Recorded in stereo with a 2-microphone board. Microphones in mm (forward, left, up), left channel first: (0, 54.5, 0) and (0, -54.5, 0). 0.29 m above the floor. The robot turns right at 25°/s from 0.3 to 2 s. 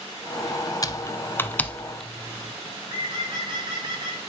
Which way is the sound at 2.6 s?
45° right (ahead or behind).